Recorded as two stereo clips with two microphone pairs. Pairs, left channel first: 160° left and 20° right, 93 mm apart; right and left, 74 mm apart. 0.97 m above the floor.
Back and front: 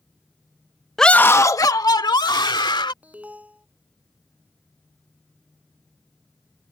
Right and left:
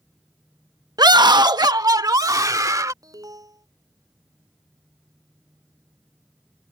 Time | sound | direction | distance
1.0 | a scream | 75° left | ?
3.0 | an alarm | 55° left | ?